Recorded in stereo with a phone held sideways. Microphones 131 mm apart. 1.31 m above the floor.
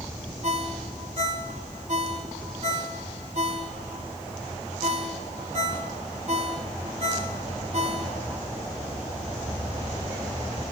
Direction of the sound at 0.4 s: 60° right (ahead or behind).